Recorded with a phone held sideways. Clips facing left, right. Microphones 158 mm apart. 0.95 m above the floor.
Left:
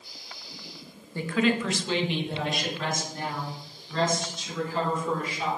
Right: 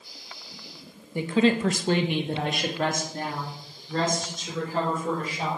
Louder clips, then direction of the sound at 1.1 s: Right 3 dB; 15° right (ahead or behind).